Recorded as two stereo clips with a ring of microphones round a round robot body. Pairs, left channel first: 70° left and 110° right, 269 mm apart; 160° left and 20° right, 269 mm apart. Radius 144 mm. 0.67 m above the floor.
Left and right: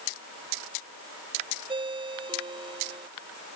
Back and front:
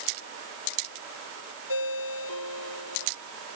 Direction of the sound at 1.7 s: 175° left.